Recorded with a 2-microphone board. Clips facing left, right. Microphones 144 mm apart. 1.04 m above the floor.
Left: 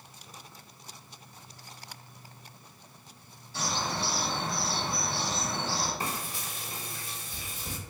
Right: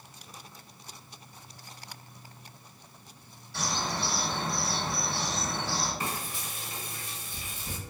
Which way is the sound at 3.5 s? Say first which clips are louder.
Even; 70° right (ahead or behind).